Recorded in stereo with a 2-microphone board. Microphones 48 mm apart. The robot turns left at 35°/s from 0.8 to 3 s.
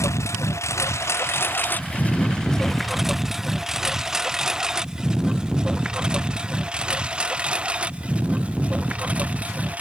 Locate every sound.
0.0 s a lawn mower: 80° left; by 9.8 s 30° right (ahead or behind)